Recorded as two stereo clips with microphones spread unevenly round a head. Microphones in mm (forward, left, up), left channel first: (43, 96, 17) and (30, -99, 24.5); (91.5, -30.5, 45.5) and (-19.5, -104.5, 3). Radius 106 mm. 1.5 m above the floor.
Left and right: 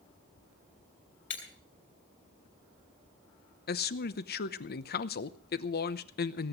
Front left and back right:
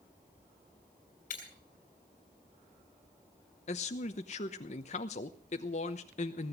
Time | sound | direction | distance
1.3 | breaking glass | 60° left | 5.5 m
3.7 | a man speaking | 55° left | 0.9 m